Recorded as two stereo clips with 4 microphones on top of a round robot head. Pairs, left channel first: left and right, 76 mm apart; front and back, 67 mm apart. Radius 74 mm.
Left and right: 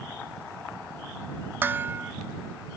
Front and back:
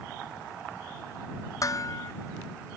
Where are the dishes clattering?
30° right.